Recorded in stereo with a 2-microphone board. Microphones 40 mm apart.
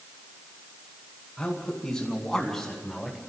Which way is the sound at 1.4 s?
25° left (ahead or behind).